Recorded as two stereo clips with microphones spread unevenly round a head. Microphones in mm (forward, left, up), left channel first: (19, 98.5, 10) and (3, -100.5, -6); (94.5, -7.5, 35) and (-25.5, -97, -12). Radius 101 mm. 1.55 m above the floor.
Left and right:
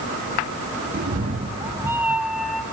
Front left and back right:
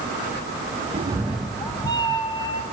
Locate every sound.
0.9 s a cat meowing: 90° right, 0.9 m; by 2.6 s 5° right, 2.5 m